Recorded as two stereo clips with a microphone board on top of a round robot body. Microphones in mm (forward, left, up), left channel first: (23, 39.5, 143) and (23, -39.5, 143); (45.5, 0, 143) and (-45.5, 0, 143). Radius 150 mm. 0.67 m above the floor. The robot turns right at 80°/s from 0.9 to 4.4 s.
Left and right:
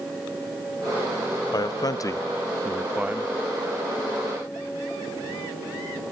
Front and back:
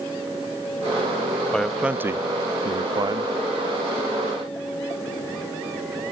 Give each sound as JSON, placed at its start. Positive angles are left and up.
{"t": 1.5, "sound": "a man speaking", "azimuth_deg": 80}